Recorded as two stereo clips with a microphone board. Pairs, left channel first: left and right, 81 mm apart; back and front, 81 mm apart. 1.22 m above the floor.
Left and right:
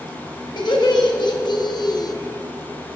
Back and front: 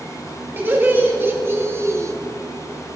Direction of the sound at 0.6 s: 65° left.